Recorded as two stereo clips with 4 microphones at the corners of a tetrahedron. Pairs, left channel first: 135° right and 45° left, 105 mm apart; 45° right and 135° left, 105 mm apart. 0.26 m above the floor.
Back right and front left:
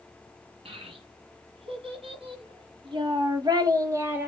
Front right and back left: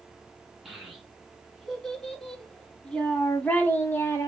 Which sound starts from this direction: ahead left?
A child speaking, at 0.7 s.